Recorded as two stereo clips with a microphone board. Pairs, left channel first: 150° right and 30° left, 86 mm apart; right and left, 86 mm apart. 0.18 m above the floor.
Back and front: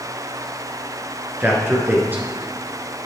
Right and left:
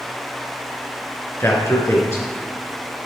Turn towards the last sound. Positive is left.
turn(degrees=-35)